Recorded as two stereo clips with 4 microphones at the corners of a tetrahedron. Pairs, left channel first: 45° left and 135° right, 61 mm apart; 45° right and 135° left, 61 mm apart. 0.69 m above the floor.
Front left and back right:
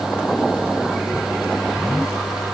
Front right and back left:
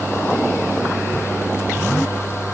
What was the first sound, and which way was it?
Only background noise.